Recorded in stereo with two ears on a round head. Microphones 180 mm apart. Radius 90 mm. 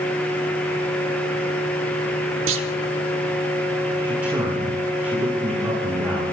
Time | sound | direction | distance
2.5 | a clunk | 70° right (ahead or behind) | 1.0 m
4.0 | a man speaking | 10° right (ahead or behind) | 5.5 m